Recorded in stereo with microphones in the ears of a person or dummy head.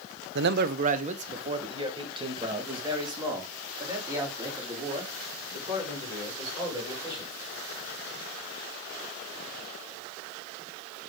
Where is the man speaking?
65° right (ahead or behind), 0.5 m; by 7.3 s 15° right (ahead or behind), 5.5 m.